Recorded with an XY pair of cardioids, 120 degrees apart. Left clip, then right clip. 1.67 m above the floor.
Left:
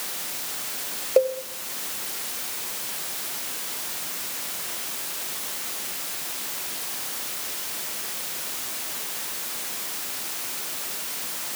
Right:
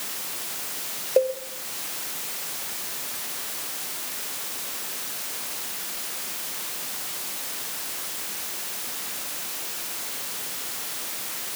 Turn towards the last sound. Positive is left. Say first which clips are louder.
# left 1 dB
turn(degrees=5)